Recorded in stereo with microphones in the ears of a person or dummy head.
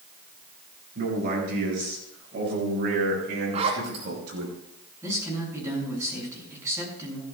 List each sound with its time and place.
0.9 s a man speaking: 50° right (ahead or behind), 8.5 m; by 4.5 s 70° right (ahead or behind), 5.5 m
3.5 s a zipper: 40° right (ahead or behind), 3 m
5.0 s a man speaking: 15° right (ahead or behind), 7 m